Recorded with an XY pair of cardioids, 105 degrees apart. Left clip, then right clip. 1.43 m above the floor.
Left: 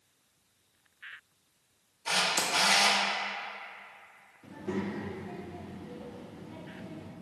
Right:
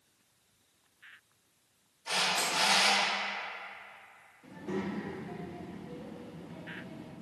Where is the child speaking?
30° left, 0.8 m.